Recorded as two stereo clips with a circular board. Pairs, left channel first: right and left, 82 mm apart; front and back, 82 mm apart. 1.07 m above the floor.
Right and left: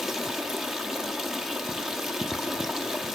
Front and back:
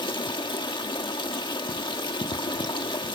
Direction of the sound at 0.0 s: 5° left.